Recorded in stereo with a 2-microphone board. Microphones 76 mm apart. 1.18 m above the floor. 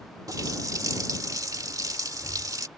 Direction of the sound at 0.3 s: 50° right (ahead or behind).